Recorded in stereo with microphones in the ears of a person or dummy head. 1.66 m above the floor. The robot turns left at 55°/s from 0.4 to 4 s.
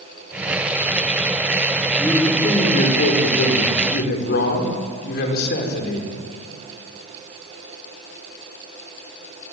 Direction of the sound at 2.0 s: 175° left.